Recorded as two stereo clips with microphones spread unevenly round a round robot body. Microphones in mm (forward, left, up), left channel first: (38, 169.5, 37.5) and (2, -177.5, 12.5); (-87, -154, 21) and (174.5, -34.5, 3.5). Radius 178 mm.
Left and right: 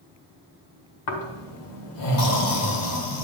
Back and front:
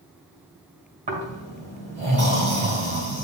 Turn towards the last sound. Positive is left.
turn(degrees=85)